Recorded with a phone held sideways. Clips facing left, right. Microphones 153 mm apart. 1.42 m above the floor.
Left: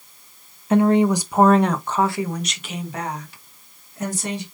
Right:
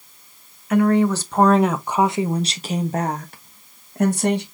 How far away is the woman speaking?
About 1.0 m.